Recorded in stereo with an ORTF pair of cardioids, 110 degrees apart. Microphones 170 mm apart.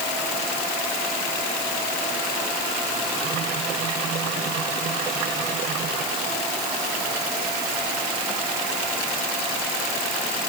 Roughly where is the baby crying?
No baby crying in this recording.